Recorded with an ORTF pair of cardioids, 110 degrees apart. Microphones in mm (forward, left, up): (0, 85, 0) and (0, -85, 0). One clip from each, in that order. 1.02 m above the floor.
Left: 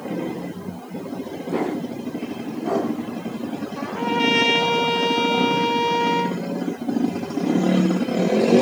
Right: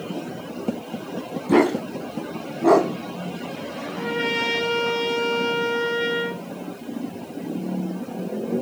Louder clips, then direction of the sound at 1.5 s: Right 7 dB; 60° right.